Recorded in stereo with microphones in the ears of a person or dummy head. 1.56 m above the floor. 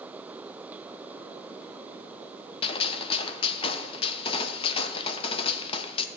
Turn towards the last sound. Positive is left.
turn(degrees=30)  # may be behind; listen again after turning